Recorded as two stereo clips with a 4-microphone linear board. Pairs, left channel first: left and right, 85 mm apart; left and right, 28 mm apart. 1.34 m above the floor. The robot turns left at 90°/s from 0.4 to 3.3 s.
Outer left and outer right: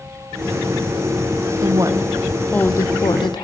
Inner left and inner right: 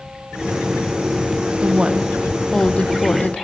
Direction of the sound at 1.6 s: 115° right.